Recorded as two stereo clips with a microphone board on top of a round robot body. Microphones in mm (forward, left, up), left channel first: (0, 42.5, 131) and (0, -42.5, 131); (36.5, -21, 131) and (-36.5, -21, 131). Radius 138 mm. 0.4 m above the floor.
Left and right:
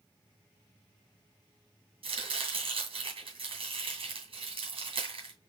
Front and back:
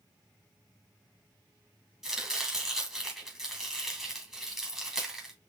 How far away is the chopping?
About 2.5 m.